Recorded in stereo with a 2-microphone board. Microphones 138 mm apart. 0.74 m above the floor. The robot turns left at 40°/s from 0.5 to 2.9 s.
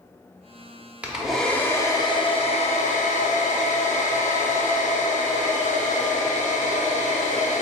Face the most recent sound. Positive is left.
turn(degrees=115)